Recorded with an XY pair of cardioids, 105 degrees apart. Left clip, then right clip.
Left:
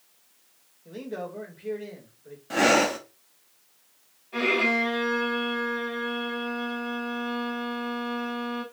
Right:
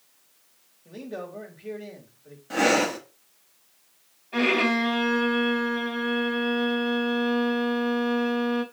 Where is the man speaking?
5° left, 4 m.